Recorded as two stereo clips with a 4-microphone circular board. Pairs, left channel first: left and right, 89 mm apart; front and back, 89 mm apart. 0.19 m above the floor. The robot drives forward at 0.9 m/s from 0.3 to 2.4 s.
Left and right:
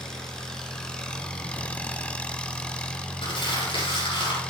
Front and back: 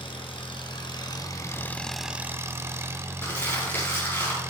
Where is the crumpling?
65° left, 7 m.